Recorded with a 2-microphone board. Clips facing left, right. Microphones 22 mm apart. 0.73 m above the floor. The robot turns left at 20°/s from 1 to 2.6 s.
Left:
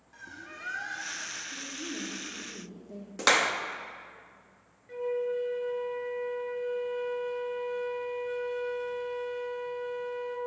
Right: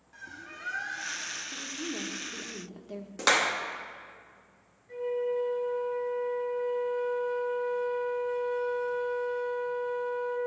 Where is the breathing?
I don't hear breathing.